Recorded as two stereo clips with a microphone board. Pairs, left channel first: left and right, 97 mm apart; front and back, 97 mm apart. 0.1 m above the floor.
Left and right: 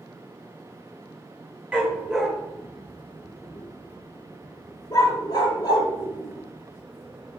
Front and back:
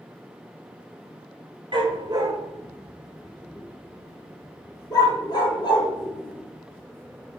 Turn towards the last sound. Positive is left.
turn(degrees=35)